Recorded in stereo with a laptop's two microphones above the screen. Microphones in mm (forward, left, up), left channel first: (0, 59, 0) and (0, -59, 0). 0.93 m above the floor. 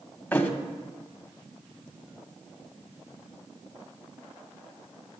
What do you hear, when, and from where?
0.3 s a thud: 20° left (ahead or behind), 0.9 m